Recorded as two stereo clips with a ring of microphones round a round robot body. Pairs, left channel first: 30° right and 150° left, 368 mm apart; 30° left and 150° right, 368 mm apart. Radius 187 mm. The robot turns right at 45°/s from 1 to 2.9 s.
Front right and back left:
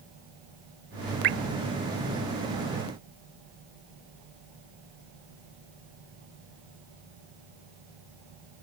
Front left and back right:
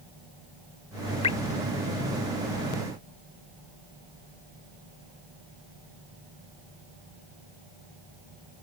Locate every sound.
1.2 s dripping: 100° left; by 1.4 s 105° left